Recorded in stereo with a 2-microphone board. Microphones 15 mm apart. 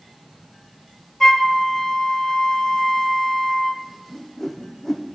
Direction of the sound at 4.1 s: 10° left (ahead or behind).